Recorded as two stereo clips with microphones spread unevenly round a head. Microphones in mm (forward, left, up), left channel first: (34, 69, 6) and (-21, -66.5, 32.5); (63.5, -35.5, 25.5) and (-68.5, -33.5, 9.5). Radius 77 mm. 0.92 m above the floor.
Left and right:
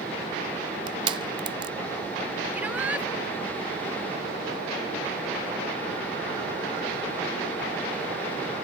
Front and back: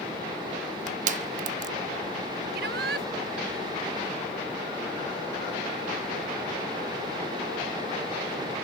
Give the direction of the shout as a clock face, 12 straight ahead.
6 o'clock.